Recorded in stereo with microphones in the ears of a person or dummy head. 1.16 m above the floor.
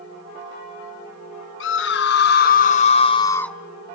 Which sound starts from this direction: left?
A scream, at 1.6 s.